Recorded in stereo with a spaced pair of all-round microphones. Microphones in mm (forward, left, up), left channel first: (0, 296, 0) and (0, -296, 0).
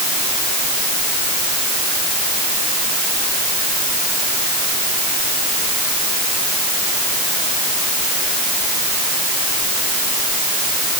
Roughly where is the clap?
No clap in this recording.